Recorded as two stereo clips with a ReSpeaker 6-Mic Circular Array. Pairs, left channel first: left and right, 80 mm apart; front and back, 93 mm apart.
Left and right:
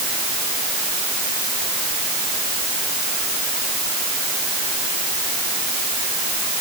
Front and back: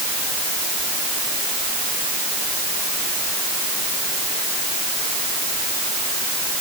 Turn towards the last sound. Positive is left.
No sound to turn to.